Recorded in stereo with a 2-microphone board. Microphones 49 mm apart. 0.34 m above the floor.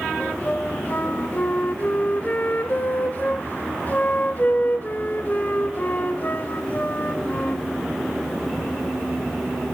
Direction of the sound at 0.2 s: 40° left (ahead or behind).